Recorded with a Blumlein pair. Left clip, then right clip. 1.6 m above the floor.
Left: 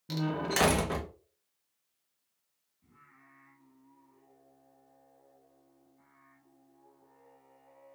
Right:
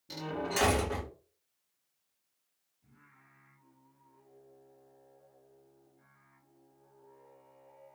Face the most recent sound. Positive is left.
turn(degrees=65)